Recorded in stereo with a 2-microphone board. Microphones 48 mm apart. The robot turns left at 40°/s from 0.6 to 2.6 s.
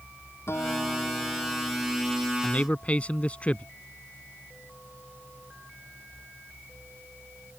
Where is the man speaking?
30° left (ahead or behind).